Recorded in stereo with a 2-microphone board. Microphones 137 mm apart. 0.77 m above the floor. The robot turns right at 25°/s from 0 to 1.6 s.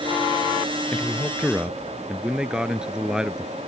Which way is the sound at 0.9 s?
10° left (ahead or behind).